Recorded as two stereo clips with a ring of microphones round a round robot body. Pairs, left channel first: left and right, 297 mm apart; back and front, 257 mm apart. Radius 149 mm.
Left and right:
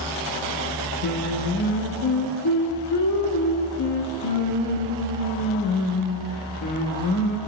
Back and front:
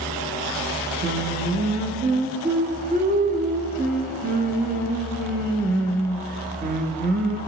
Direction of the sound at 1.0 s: 60° left.